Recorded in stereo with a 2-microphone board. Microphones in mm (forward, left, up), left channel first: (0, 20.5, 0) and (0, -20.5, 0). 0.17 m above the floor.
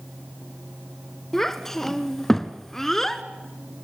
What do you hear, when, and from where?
1.3 s a child speaking: 10° left (ahead or behind), 1.5 m